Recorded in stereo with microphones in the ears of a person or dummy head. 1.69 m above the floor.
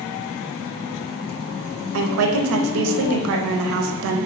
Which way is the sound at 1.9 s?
65° right (ahead or behind).